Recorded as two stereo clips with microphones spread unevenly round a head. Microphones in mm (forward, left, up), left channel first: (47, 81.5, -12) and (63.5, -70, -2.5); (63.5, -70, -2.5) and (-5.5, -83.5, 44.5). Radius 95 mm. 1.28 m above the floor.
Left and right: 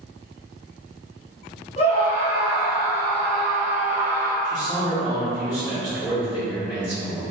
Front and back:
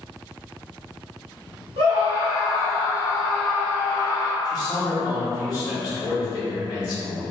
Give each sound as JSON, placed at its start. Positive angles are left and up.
{"t": 1.8, "sound": "a scream", "azimuth_deg": 150, "distance_m": 0.9}
{"t": 4.4, "sound": "a man speaking", "azimuth_deg": 15, "distance_m": 1.1}